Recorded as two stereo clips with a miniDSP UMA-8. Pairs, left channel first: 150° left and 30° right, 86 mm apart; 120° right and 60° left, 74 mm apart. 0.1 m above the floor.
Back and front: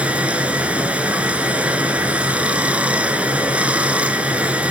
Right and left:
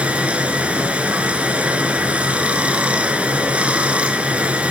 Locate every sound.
0.0 s running water: 20° left, 1.1 m